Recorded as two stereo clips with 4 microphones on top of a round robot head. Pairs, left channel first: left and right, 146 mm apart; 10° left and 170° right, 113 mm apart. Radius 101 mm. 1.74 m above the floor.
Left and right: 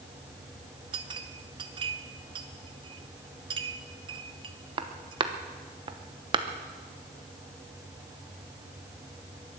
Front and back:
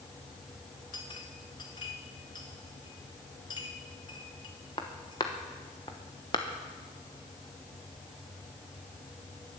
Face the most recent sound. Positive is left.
turn(degrees=-50)